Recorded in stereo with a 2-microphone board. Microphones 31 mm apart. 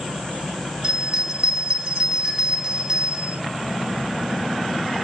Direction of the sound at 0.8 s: 35° right (ahead or behind).